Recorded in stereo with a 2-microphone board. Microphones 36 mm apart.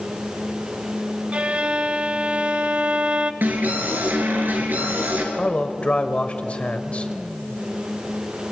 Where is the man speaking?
35° left (ahead or behind), 1.5 m.